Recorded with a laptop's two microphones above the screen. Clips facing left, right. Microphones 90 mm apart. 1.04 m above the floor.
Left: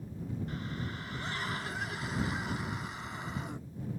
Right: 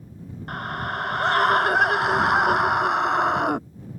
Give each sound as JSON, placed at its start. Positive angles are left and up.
{"t": 0.5, "sound": "a scream", "side_deg": -70}